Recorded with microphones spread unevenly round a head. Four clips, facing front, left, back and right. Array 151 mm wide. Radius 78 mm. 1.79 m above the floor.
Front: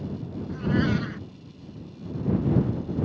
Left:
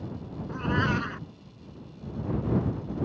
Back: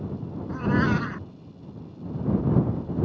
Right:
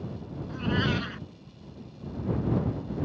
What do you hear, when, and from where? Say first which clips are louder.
0.5 s a cat meowing: left 1 dB, back 1 dB; 155° left